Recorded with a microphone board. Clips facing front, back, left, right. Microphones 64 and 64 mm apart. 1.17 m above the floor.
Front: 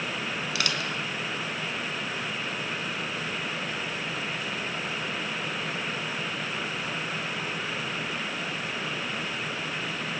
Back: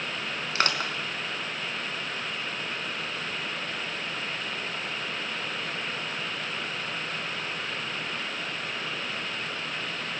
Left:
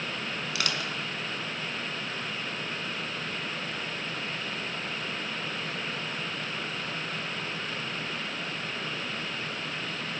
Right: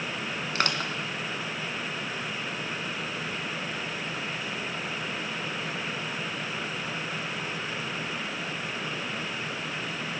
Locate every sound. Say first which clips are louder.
0.6 s crushing: back 5 dB, right 5 dB; 135° right, 2.5 m